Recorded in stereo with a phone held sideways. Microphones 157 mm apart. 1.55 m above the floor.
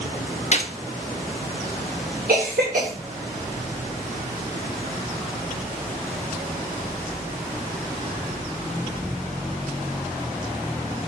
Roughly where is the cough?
Right.